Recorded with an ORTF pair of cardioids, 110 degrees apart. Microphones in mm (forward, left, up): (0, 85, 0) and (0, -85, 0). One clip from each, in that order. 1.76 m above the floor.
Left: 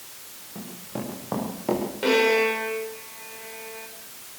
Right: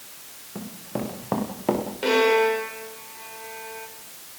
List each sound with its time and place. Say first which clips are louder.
0.6 s running footsteps: right 3 dB; 30° right, 7.5 m
2.0 s a violin: right 1 dB; straight ahead, 4.5 m